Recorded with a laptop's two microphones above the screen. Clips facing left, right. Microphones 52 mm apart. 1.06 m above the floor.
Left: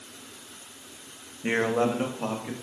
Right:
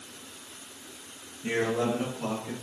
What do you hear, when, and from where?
1.4 s a man speaking: 40° left (ahead or behind), 1.4 m; by 2.5 s 35° left (ahead or behind), 2.5 m